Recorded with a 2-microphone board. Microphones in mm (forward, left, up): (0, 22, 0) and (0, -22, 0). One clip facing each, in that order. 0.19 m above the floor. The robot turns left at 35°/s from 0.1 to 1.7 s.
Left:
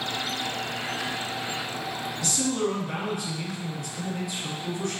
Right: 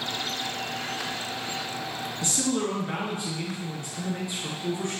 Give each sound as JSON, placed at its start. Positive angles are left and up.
{"t": 2.2, "sound": "a man speaking", "side_deg": -35, "distance_m": 2.5}